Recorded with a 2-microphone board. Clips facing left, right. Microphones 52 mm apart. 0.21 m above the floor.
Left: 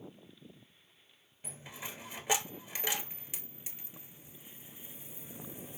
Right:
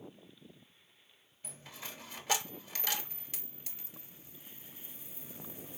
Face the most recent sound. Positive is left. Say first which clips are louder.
# left 2 dB
turn(degrees=20)  # may be behind; listen again after turning